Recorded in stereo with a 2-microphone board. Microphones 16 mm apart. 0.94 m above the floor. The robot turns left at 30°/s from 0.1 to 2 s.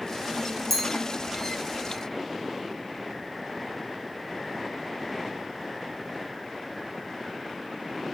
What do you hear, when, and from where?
0.7 s a clink: 15° left (ahead or behind), 0.5 m; by 0.8 s 10° left (ahead or behind), 0.5 m